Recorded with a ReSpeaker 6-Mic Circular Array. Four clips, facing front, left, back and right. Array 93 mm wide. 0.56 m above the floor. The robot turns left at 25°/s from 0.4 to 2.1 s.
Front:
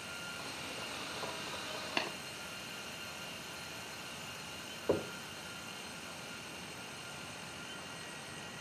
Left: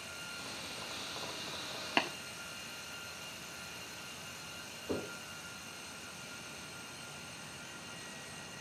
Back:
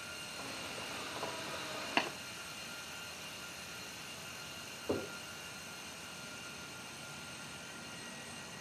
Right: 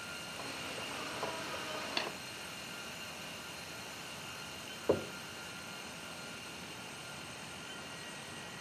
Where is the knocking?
60° right, 1.9 m.